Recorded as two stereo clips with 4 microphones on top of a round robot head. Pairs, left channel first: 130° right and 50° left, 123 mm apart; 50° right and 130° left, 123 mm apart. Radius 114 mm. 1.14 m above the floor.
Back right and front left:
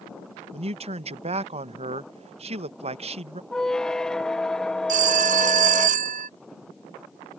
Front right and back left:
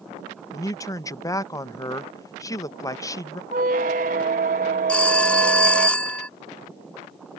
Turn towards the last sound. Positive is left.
turn(degrees=30)